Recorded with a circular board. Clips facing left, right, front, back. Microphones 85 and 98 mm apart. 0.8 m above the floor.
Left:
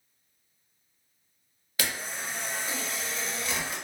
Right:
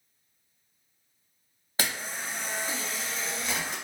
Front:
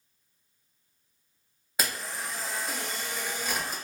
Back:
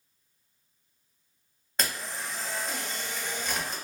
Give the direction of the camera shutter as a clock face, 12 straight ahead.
3 o'clock.